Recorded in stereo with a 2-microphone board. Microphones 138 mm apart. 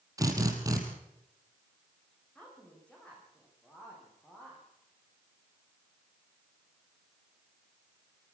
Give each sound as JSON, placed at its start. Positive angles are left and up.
{"t": 0.2, "sound": "a drill", "side_deg": -25, "distance_m": 3.5}
{"t": 2.4, "sound": "a woman speaking", "side_deg": 10, "distance_m": 9.0}